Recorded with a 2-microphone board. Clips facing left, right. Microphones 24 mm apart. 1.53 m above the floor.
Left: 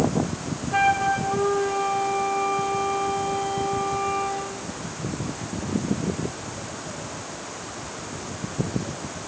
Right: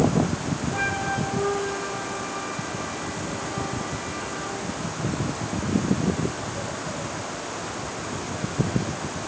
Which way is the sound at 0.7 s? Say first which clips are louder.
Left 8 dB; 80° left.